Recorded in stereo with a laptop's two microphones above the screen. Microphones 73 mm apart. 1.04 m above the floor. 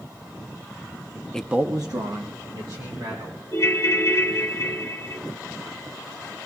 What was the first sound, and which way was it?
A man speaking, 15° left (ahead or behind).